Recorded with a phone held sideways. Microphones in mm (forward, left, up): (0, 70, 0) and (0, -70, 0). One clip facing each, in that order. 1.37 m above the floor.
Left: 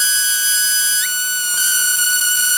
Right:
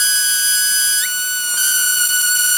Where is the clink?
No clink in this recording.